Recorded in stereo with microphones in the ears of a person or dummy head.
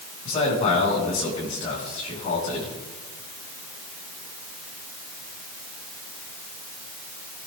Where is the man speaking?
35° left (ahead or behind), 6.5 m.